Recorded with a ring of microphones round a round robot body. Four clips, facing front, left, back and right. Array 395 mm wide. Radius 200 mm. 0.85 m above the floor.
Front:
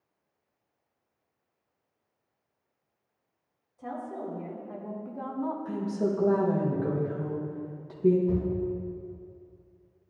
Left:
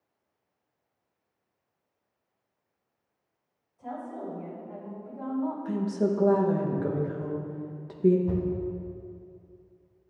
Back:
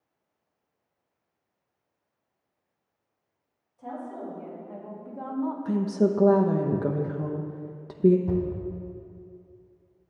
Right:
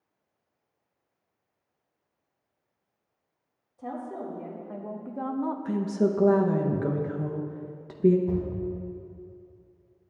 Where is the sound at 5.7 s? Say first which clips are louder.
Right 3 dB, back 7 dB; 160° right, 0.8 m.